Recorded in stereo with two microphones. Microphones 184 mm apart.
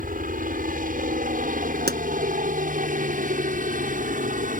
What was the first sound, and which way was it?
A helicopter, 50° right (ahead or behind).